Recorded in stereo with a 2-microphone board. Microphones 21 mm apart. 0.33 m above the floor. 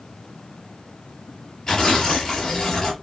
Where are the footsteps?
I don't hear footsteps.